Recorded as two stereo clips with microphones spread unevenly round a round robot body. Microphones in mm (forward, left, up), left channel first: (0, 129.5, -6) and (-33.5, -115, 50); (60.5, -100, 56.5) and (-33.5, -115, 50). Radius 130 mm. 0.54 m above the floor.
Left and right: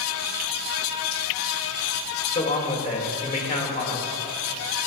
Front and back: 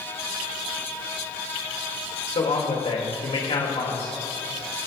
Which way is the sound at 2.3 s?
25° left.